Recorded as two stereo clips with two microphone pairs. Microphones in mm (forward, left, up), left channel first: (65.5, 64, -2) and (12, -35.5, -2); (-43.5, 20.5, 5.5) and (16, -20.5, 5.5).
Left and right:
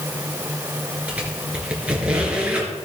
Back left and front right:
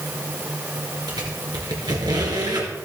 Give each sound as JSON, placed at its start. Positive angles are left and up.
{"t": 1.1, "sound": "a squeak", "azimuth_deg": -40, "distance_m": 3.0}